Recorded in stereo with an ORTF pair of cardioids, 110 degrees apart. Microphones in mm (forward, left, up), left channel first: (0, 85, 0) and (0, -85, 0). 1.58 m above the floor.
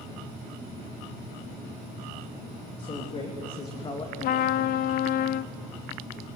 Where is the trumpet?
60° left, 0.5 m.